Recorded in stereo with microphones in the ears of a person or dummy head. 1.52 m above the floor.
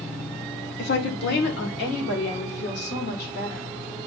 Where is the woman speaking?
65° left (ahead or behind), 1.2 m.